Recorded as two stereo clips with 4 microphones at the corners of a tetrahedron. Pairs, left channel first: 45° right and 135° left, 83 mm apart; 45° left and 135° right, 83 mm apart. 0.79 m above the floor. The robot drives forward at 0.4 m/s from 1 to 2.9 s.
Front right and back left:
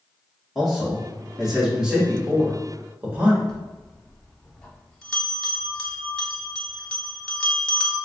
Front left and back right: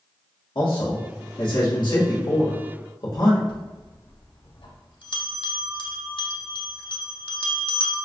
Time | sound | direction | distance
0.6 | a man speaking | 45° left | 1.6 m
3.5 | a bell | 35° left | 0.8 m